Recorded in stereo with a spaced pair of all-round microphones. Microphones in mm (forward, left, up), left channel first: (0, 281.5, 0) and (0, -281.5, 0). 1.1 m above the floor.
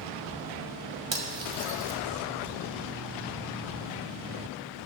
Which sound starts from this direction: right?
Cutlery clinking, at 1.1 s.